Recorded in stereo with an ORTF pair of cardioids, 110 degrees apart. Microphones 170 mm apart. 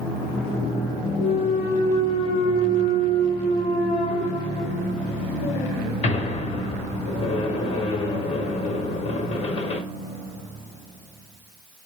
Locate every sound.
1.2 s a clunk: 40° left, 1.0 m